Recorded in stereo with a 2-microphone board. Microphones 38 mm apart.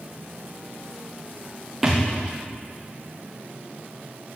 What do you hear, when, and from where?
1.8 s a thud: 5° right (ahead or behind), 4.5 m